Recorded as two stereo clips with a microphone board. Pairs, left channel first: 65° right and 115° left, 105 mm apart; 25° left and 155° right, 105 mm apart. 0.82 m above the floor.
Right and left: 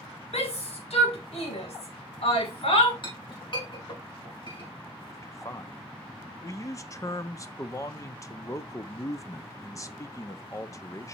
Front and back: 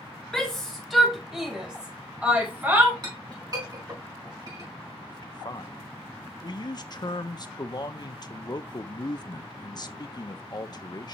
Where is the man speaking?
15° right, 0.8 m.